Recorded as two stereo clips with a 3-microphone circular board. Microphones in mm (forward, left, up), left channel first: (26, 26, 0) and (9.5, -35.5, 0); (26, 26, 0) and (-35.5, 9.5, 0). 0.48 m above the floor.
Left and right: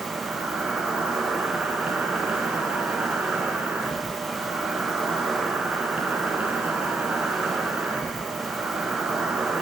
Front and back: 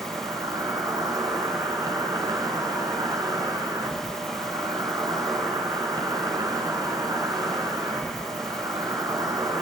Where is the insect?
175° right, 5.5 m.